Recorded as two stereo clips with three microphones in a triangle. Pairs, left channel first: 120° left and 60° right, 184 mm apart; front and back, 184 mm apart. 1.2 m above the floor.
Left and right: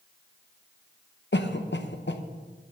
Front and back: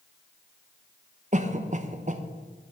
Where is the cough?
130° left, 1.0 m.